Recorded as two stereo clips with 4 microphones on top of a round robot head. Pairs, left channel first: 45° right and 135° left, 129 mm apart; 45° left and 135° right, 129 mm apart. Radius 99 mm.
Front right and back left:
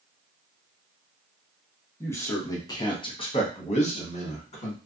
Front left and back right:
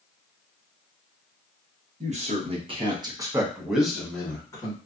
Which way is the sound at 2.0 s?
115° right.